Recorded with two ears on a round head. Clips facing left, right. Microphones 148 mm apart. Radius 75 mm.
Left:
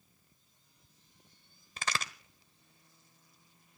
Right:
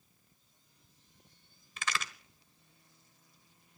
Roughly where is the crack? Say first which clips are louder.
Left 1 dB; left.